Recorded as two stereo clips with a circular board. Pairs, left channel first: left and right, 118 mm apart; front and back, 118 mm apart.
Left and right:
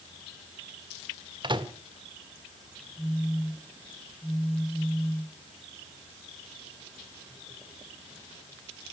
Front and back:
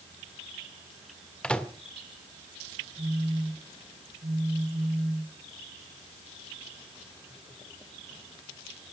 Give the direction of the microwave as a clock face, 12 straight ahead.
3 o'clock.